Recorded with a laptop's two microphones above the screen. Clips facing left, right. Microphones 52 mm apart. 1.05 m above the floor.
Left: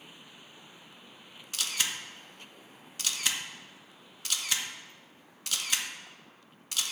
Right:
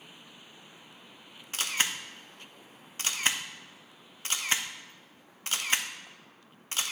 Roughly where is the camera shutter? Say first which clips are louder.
Right 3 dB; right.